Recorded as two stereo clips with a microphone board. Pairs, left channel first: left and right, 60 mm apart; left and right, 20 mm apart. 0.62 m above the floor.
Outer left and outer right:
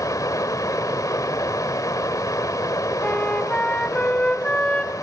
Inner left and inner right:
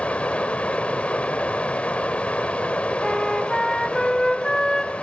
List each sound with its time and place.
0.0 s running water: 75° left (ahead or behind), 1.4 m
3.0 s a flute: 20° left (ahead or behind), 1.9 m